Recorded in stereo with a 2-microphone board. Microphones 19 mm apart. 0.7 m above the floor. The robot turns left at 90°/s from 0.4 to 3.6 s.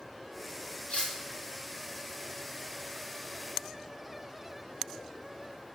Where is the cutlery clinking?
90° left, 0.7 m; by 1.1 s 70° left (ahead or behind), 0.7 m.